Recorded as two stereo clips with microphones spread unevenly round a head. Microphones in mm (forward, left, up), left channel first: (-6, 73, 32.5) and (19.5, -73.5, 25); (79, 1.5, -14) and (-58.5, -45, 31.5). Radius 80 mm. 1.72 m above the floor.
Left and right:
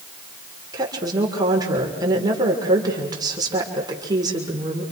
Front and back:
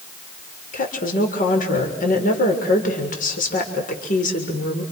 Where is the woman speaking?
15° right, 6.5 m.